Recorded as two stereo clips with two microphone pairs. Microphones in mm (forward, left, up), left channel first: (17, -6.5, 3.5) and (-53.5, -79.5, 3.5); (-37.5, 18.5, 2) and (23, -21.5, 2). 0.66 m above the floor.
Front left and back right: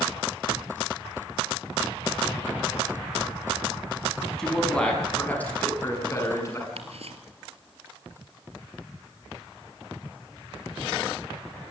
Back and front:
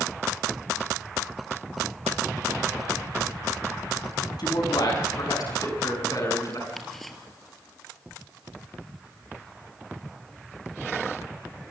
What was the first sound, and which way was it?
A man speaking, 130° left.